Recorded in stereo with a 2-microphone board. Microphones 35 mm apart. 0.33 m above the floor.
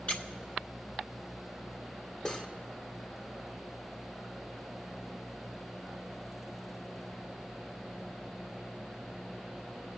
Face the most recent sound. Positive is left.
turn(degrees=20)  # may be behind; listen again after turning